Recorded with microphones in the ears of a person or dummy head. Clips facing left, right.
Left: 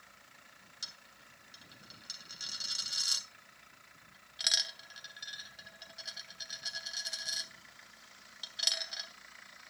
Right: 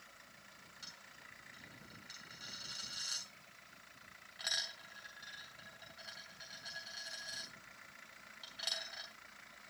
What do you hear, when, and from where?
0.8 s a dropped coin: 40° left (ahead or behind), 3 m